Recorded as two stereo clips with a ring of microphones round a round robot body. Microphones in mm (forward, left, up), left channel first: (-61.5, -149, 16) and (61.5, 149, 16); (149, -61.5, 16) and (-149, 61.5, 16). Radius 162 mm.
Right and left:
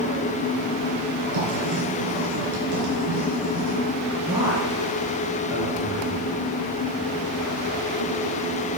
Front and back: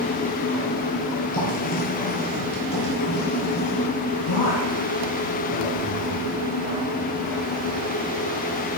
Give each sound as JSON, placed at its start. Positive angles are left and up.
{"t": 1.3, "sound": "writing", "azimuth_deg": 30, "distance_m": 4.0}
{"t": 4.3, "sound": "a man speaking", "azimuth_deg": -15, "distance_m": 3.5}